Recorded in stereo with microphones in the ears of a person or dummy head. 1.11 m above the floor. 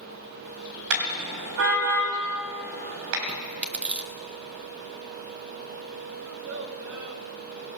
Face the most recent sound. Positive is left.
turn(degrees=-75)  # may be behind; listen again after turning